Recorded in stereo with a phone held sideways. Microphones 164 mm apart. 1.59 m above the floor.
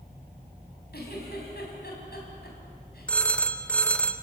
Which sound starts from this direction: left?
A giggle, at 0.9 s.